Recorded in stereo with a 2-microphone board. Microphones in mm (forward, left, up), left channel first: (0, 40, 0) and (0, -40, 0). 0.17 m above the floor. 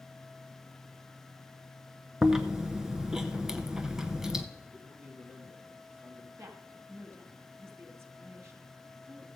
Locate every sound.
2.2 s chewing: 5° right (ahead or behind), 0.8 m
4.7 s a man speaking: 20° right (ahead or behind), 4 m
6.4 s a woman speaking: 35° right (ahead or behind), 1.8 m